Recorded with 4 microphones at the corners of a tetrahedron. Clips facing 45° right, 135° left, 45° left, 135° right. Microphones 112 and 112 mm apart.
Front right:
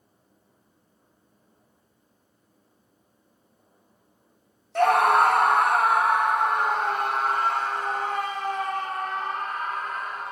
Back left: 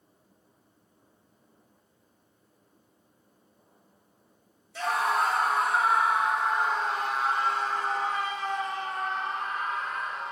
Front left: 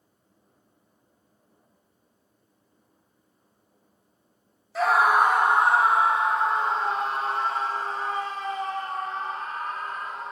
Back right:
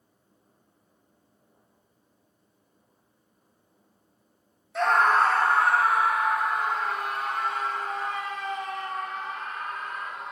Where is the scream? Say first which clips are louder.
Front right 8 dB, front left 1 dB; 45° right, 0.7 m; by 10.3 s 10° right, 4.5 m.